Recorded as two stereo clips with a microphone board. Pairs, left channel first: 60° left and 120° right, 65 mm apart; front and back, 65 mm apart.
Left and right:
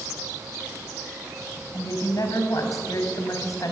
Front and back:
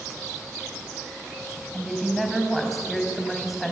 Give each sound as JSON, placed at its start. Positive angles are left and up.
{"t": 1.7, "sound": "a woman speaking", "azimuth_deg": 90, "distance_m": 4.5}